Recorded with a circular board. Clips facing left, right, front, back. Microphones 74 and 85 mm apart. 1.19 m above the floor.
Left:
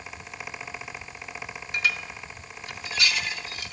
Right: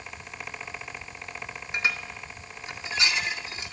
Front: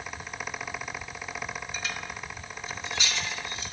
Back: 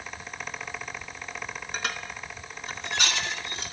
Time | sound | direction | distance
1.7 | dishes clattering | 155° right | 2 m